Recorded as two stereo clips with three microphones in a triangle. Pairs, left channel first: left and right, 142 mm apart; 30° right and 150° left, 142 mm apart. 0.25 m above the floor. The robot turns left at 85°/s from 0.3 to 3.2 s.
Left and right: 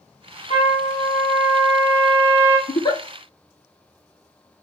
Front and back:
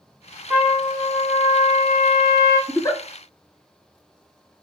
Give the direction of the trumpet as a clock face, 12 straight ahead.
10 o'clock.